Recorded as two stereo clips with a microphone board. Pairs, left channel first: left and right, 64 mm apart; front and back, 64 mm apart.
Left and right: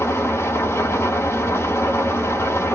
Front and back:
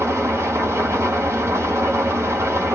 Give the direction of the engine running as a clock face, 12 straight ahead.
8 o'clock.